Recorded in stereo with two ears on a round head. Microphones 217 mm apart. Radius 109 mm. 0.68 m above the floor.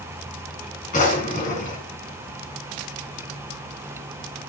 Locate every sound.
0.9 s a drawer: 35° left (ahead or behind), 3 m